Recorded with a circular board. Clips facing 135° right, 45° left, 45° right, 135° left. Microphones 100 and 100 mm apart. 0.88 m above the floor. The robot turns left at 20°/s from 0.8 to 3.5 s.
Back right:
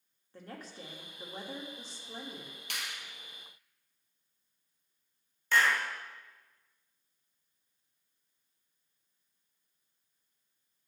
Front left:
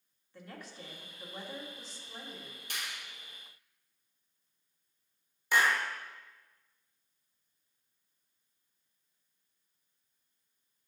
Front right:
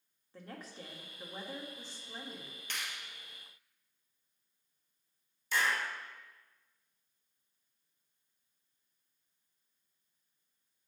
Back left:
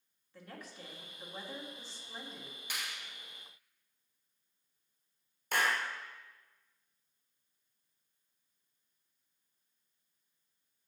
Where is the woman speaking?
95° right, 1.5 m; by 2.6 s 130° right, 1.5 m.